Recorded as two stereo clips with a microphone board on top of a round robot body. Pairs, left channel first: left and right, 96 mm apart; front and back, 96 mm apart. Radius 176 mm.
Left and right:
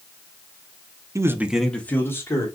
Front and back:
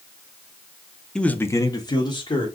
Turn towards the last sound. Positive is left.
turn(degrees=35)